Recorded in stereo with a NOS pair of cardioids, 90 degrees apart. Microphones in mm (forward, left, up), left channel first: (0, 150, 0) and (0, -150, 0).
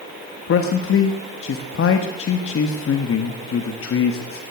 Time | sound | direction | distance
0.5 | a man speaking | 45° left | 1.4 m